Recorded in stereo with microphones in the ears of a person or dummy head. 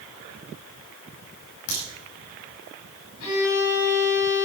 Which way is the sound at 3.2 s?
80° left.